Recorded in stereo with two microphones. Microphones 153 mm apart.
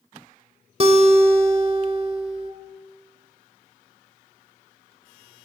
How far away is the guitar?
About 1.2 m.